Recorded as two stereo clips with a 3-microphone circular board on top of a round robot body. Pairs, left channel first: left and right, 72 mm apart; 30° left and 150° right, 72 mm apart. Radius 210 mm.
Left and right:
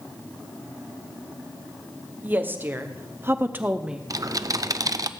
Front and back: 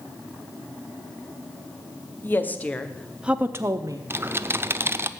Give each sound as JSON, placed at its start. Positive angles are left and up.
{"t": 2.2, "sound": "a woman speaking", "azimuth_deg": -30, "distance_m": 1.9}
{"t": 4.1, "sound": "typing on a keyboard", "azimuth_deg": -100, "distance_m": 0.9}